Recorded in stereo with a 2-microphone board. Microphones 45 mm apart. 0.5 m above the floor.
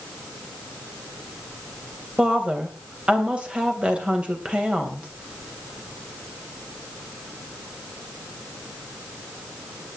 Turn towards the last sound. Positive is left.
turn(degrees=-25)  # may be behind; listen again after turning